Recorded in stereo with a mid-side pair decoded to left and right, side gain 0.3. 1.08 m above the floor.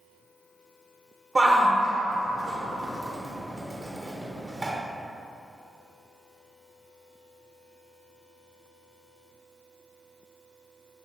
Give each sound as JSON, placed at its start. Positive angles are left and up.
{"t": 1.4, "sound": "a shout", "azimuth_deg": -25, "distance_m": 0.7}